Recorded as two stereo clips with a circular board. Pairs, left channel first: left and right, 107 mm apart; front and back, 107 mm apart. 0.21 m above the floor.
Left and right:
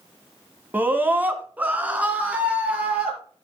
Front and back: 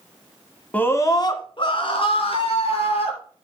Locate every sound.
0.7 s a scream: 50° right, 1.2 m; by 3.2 s 10° right, 4.5 m